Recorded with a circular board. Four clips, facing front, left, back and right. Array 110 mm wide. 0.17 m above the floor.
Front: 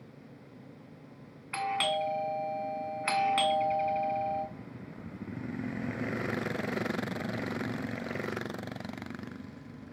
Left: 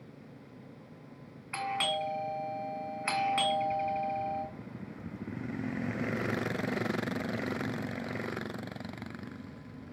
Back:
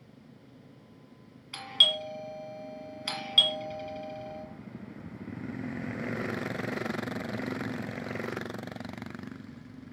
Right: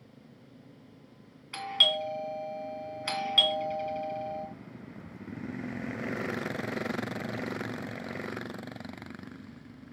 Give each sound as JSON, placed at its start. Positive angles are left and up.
{"t": 1.5, "sound": "a doorbell", "azimuth_deg": 30, "distance_m": 1.8}